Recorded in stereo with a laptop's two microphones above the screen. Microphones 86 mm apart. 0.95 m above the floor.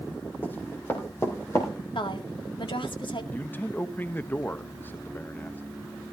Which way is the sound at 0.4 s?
25° left (ahead or behind).